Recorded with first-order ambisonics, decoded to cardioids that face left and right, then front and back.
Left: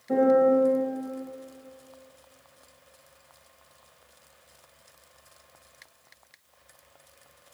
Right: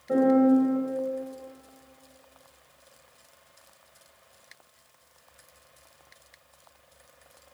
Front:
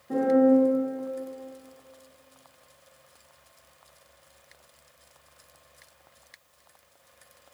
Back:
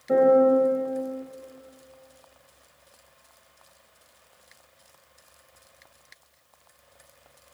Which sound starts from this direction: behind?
A piano, at 0.1 s.